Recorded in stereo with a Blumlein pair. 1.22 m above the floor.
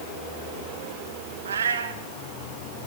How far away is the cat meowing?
About 1.6 m.